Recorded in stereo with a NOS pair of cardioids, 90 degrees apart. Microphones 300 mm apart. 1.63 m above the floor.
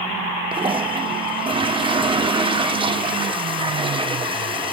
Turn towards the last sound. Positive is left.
turn(degrees=-15)